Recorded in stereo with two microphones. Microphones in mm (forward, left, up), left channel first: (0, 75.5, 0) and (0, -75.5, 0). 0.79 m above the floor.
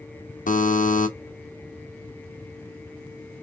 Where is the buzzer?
60° left (ahead or behind), 0.7 m.